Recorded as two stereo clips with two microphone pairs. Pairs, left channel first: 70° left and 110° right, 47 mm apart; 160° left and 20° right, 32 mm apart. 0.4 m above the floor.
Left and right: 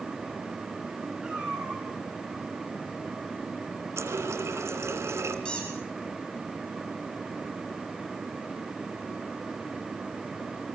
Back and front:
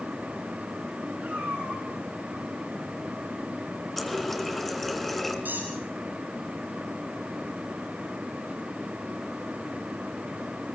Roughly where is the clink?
No clink in this recording.